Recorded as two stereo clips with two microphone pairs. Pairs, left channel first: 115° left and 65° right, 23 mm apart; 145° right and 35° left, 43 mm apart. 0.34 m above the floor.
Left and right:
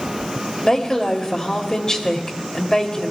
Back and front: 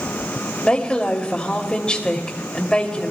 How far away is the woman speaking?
About 1.4 m.